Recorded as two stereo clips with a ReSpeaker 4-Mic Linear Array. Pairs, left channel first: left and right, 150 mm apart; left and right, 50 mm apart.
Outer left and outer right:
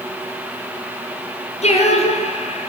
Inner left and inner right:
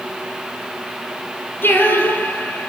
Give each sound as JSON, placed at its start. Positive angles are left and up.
{"t": 1.6, "sound": "singing", "side_deg": 50, "distance_m": 6.5}